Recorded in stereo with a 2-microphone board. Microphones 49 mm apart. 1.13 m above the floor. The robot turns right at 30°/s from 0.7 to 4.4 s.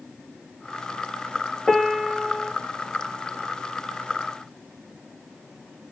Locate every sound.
1.7 s a piano: 10° left (ahead or behind), 0.6 m; by 2.5 s 15° right (ahead or behind), 0.6 m